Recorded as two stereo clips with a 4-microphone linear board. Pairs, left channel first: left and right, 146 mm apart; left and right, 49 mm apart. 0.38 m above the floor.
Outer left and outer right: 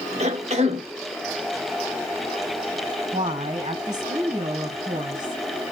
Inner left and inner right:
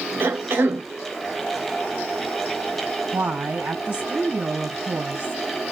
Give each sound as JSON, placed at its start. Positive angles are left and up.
{"t": 0.2, "sound": "a cough", "side_deg": -50, "distance_m": 1.7}
{"t": 3.1, "sound": "a woman speaking", "side_deg": -55, "distance_m": 3.0}